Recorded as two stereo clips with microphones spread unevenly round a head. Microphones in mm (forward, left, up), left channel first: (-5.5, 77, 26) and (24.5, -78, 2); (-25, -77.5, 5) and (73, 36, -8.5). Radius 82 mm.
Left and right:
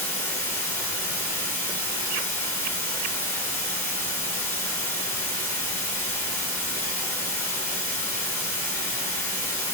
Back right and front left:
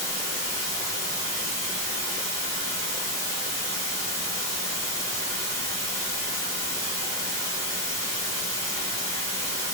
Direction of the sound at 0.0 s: 165° left.